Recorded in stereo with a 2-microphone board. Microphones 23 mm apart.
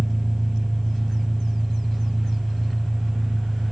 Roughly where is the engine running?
Left.